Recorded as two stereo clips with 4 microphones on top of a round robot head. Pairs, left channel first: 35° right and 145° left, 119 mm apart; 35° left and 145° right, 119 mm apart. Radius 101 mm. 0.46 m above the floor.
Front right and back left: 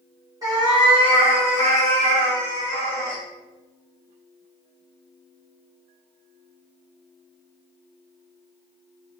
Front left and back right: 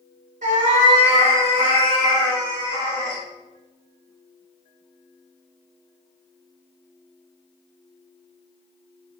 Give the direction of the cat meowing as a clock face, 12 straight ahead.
5 o'clock.